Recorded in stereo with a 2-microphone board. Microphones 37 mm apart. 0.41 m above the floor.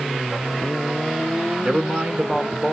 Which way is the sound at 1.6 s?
30° right (ahead or behind).